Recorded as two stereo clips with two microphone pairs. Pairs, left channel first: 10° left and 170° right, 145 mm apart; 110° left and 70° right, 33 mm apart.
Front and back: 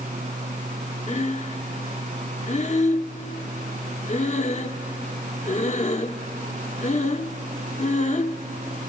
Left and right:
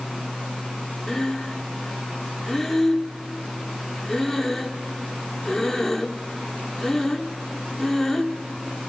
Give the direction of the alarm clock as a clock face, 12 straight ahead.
I don't hear an alarm clock.